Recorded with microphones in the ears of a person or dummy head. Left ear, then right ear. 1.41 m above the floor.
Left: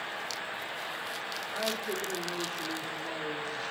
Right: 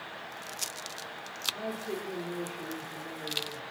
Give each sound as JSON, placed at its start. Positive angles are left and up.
{"t": 1.5, "sound": "a woman speaking", "side_deg": 45, "distance_m": 4.0}